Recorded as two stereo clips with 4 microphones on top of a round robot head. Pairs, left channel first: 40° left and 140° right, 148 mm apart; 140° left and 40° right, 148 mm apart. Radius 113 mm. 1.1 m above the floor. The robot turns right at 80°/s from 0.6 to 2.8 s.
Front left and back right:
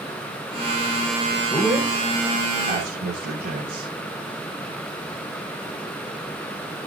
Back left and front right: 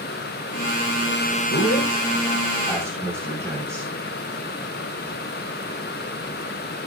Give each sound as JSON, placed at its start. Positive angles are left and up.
{"t": 1.5, "sound": "a man speaking", "azimuth_deg": 115, "distance_m": 4.0}